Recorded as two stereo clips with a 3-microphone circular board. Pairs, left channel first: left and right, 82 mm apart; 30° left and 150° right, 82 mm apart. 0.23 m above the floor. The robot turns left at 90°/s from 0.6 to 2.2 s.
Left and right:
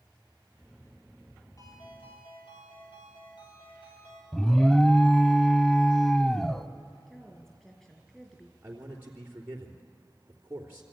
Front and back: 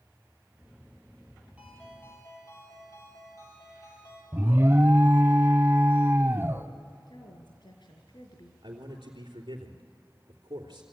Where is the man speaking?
155° right, 3.5 m.